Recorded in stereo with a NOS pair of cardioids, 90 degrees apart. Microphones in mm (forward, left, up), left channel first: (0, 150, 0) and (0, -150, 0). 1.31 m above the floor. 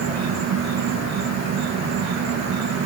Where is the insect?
60° right, 1.2 m.